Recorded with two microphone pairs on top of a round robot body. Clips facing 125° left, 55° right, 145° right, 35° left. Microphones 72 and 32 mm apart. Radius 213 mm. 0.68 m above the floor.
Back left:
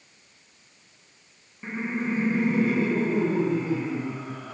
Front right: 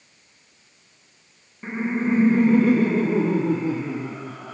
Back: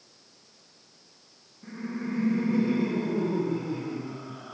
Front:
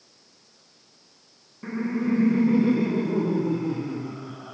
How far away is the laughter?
About 0.6 m.